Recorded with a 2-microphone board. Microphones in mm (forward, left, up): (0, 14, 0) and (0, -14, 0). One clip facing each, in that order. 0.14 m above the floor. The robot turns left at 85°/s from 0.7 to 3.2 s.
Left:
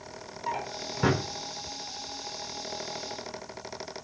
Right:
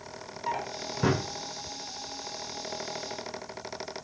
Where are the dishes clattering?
I don't hear dishes clattering.